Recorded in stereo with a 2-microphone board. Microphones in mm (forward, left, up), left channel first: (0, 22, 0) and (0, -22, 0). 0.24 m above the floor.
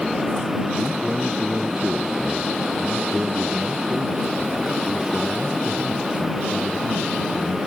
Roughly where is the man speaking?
Centre.